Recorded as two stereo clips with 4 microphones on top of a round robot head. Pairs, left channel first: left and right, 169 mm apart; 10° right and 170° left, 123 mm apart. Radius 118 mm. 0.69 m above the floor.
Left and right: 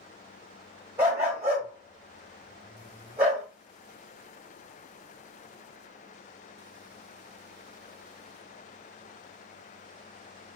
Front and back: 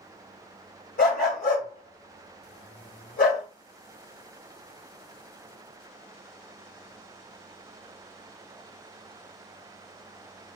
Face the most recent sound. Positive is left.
turn(degrees=-10)